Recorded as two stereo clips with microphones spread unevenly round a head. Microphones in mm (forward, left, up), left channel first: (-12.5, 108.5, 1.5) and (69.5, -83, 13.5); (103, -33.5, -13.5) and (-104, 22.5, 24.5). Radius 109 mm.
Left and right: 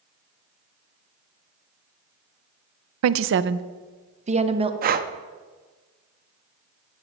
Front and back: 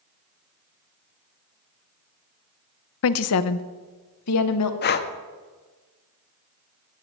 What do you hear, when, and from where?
3.0 s a woman speaking: 45° right, 0.5 m; by 4.7 s straight ahead, 1.2 m
4.8 s breathing: 55° right, 0.6 m